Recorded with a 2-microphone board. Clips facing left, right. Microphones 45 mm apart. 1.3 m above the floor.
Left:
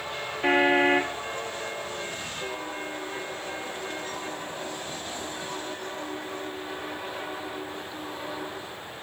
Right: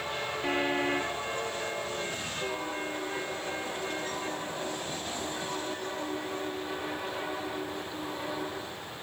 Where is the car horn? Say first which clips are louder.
Left 9 dB; 45° left (ahead or behind).